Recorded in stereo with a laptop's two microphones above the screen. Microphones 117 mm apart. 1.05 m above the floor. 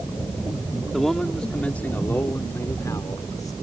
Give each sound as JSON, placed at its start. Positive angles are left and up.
{"t": 0.9, "sound": "a man speaking", "side_deg": 0}